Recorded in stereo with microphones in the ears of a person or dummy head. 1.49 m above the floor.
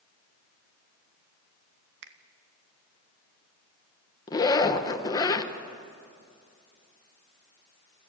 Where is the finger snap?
60° right (ahead or behind), 1.0 m.